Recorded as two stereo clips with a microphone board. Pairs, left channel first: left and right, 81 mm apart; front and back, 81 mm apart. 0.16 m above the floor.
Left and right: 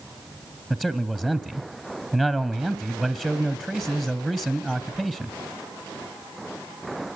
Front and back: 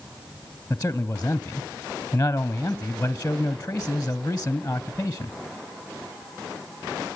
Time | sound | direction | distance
0.7 | a man speaking | 25° right | 1.1 m